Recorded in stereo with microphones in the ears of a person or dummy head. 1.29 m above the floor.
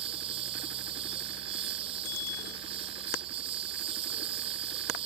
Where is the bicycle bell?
85° left.